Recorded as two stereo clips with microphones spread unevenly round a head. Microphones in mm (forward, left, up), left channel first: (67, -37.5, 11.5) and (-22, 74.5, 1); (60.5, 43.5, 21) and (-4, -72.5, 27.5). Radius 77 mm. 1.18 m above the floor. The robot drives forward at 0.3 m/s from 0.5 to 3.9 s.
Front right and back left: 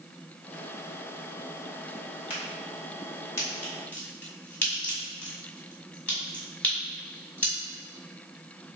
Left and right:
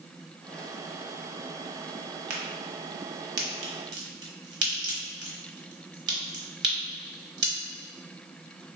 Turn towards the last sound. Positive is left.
turn(degrees=-130)